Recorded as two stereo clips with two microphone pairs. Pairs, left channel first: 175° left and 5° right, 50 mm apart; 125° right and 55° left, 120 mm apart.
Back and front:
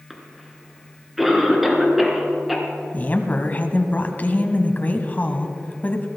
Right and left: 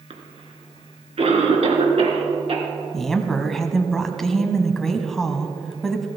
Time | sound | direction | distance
0.1 | a cough | 80° left | 2.5 m
2.9 | a woman speaking | 155° left | 1.3 m